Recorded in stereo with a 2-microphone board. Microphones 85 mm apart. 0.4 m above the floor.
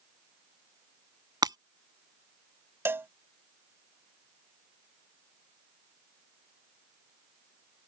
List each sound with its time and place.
1.4 s breaking glass: 60° right (ahead or behind)
2.9 s a cowbell: 30° right (ahead or behind)